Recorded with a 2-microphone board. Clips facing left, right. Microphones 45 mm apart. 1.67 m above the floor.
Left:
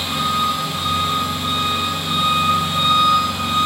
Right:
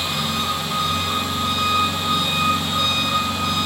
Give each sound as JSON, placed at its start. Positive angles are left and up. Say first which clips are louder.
{"t": 0.0, "sound": "an engine running", "louder": "left 4 dB", "side_deg": 20, "distance_m": 2.5}